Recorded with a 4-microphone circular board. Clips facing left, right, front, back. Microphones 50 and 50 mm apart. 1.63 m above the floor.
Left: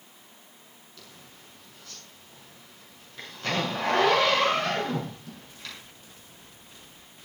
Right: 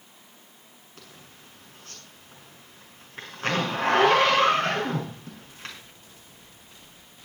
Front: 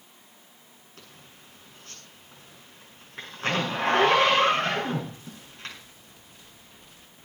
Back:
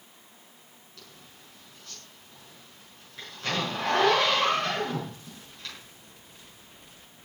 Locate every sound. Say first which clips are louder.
1.0 s a zipper: right 2 dB, front 1 dB; 50° right, 6 m